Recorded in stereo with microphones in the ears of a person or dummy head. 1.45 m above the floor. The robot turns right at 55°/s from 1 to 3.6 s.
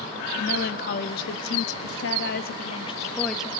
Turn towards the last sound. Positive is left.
turn(degrees=-165)